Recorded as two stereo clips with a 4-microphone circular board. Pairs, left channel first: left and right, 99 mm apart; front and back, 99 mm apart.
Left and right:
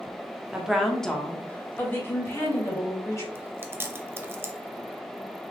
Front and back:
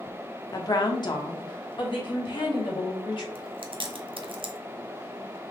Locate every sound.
0.5 s a woman speaking: 15° right, 0.9 m; by 3.2 s 35° left, 2 m
3.4 s chewing: 155° right, 0.6 m